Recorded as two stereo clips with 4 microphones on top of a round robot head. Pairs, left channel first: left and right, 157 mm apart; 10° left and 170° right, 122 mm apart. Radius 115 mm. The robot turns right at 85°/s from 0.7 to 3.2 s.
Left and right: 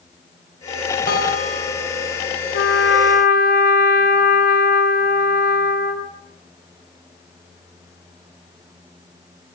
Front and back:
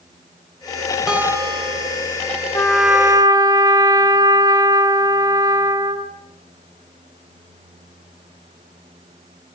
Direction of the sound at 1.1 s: 105° left.